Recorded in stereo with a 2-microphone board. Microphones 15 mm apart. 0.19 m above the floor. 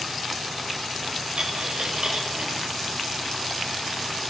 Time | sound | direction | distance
1.4 | a dropped coin | 85° right | 4.5 m